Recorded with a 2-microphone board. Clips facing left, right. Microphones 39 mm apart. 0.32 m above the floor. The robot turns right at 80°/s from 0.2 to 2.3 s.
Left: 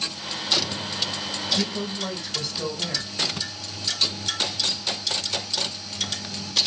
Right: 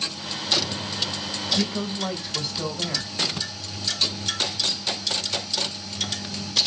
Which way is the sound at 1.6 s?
20° right (ahead or behind).